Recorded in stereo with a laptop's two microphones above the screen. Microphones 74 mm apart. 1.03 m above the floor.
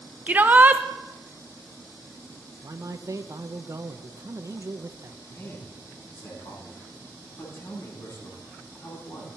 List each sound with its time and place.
0.3 s a shout: 20° right (ahead or behind), 0.6 m
2.6 s a man speaking: 40° right (ahead or behind), 0.9 m
5.3 s a man speaking: 40° left (ahead or behind), 8.5 m